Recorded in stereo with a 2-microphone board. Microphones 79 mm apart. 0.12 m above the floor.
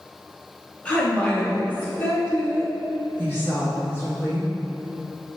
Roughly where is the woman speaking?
Centre.